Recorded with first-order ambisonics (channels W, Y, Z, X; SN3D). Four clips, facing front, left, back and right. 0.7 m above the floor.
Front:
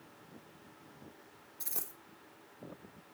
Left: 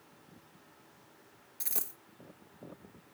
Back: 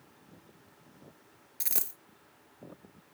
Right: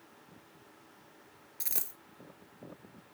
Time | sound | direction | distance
1.6 | a dropped coin | 170° right | 0.8 m